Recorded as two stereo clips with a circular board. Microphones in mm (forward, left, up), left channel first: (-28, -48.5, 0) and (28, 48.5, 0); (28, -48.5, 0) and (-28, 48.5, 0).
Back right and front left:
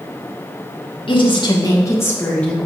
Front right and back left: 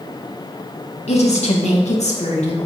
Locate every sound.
1.1 s a woman speaking: 80° right, 2.5 m; by 2.6 s 40° right, 2.5 m